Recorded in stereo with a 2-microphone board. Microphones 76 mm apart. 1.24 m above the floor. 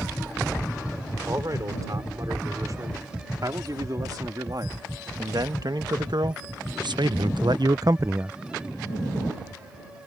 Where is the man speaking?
50° right (ahead or behind); by 8.3 s 20° right (ahead or behind).